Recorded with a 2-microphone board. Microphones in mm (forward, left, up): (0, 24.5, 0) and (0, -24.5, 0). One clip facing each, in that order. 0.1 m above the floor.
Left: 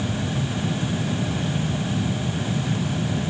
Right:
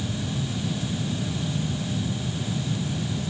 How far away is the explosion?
No explosion in this recording.